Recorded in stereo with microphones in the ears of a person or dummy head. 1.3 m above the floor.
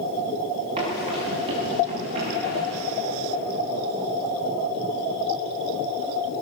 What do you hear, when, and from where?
0.8 s running footsteps: 30° right (ahead or behind), 9 m